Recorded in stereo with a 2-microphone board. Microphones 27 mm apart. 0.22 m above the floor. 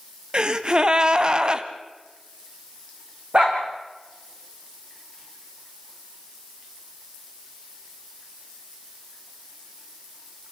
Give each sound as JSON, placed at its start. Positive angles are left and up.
{"t": 0.3, "sound": "a gasp", "side_deg": -35, "distance_m": 1.0}
{"t": 3.3, "sound": "a dog barking", "side_deg": -50, "distance_m": 4.0}